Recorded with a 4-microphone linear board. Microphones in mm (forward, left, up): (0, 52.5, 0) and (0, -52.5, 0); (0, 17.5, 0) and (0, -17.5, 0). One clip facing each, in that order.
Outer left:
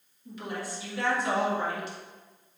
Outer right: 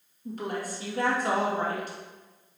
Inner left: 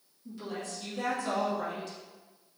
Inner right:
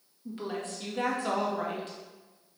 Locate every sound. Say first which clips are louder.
0.2 s a woman speaking: outer right 4 dB, inner right 3 dB; 45° right (ahead or behind), 1.8 m